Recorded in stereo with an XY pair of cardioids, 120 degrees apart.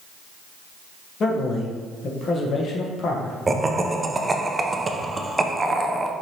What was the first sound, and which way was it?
A man speaking, 45° left.